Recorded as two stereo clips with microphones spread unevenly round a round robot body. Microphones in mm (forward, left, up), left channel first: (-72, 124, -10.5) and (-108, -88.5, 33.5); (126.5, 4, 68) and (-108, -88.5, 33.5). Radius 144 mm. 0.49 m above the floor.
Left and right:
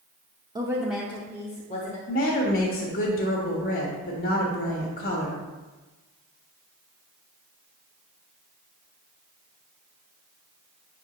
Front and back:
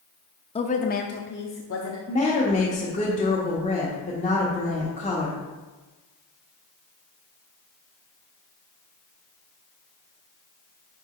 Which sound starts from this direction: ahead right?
A woman speaking, at 0.6 s.